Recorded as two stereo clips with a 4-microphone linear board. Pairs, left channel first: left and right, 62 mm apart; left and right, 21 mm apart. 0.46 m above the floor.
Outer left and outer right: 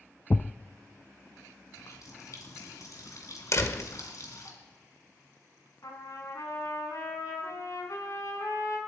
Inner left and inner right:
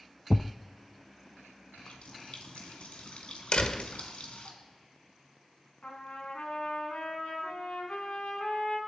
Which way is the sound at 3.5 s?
55° left (ahead or behind).